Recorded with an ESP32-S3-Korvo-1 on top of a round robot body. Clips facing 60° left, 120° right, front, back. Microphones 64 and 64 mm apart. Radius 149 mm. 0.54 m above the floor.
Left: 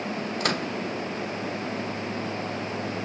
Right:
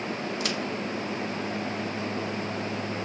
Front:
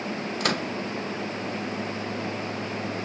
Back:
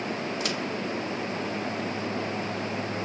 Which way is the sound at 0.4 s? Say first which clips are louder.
Left 5 dB, front 3 dB; 25° left.